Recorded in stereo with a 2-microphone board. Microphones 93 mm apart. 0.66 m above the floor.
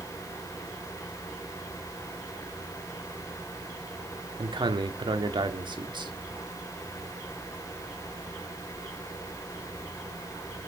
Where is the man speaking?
60° right (ahead or behind), 1.3 m.